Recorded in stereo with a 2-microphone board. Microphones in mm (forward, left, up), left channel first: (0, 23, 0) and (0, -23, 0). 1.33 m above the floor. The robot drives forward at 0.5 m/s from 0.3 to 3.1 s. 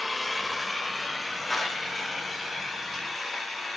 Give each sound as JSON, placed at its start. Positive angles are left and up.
{"t": 0.0, "sound": "an engine running", "side_deg": 0, "distance_m": 1.3}
{"t": 1.5, "sound": "a clap", "side_deg": -5, "distance_m": 2.5}